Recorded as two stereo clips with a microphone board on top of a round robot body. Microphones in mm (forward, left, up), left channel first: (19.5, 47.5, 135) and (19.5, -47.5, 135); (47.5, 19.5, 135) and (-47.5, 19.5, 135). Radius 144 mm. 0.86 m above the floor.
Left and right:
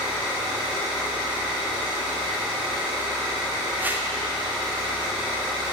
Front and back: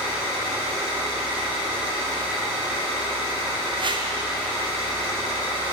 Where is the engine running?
165° right, 2.5 m.